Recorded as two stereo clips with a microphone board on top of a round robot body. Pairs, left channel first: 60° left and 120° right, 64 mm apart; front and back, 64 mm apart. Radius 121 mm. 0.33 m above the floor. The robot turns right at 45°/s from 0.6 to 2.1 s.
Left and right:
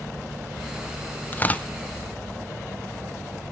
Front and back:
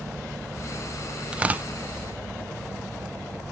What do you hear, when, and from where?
1.3 s tearing paper: 110° left, 0.7 m; by 1.7 s 125° left, 0.7 m